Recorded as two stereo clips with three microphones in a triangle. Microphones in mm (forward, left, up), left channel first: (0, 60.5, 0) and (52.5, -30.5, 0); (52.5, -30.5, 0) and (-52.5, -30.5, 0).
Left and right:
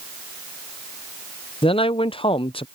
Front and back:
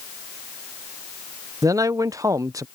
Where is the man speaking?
130° left.